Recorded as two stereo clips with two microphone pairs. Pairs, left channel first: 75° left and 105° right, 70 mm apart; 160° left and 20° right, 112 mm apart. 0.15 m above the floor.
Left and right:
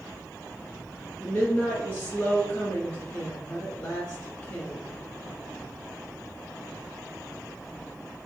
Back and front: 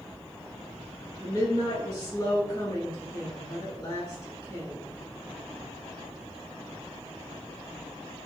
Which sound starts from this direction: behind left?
A woman speaking, at 1.2 s.